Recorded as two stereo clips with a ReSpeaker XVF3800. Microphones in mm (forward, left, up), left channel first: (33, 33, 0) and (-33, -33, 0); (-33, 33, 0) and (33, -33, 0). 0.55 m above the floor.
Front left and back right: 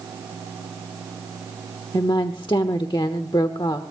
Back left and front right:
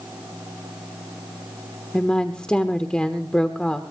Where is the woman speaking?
60° left, 1.2 m.